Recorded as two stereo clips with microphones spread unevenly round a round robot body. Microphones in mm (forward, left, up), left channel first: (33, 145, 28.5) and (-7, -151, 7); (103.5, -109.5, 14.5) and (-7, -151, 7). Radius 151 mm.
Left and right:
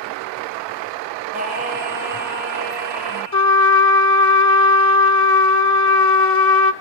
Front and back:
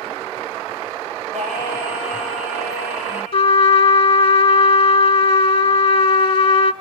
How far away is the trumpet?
About 1.0 m.